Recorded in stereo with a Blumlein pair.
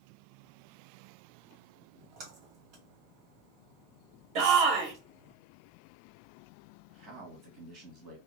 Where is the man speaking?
30° right, 2 m.